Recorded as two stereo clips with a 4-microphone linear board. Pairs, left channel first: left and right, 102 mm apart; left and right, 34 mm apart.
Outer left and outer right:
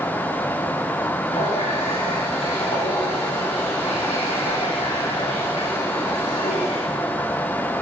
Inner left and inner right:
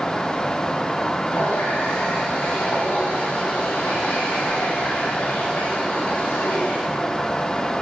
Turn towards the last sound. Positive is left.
turn(degrees=80)